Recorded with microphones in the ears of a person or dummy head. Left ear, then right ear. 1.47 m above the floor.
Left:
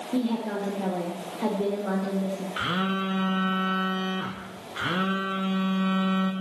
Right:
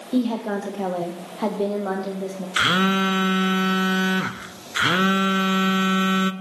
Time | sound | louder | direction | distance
0.1 | a woman speaking | right 5 dB | 80° right | 1.1 m
2.6 | a phone buzzing | right 10 dB | 75° right (ahead or behind) | 0.5 m